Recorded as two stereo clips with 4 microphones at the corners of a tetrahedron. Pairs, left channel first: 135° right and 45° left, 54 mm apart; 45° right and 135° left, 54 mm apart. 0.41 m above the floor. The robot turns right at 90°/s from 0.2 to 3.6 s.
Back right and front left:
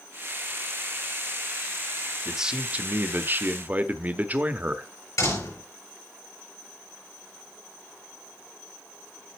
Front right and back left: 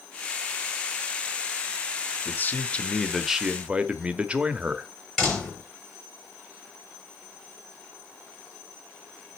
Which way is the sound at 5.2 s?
130° right.